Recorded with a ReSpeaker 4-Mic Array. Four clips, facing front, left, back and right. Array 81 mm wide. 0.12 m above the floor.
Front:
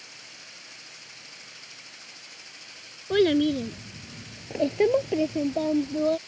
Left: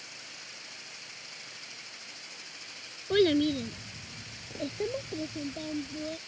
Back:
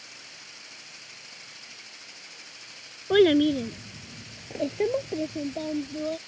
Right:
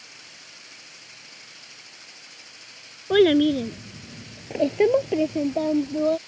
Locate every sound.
3.1 s a child speaking: 120° right; by 6.2 s 60° right